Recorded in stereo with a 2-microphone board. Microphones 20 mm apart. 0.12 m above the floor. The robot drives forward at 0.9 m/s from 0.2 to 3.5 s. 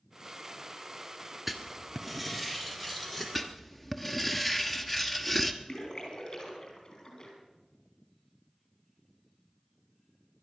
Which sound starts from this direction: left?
A splash, at 5.7 s.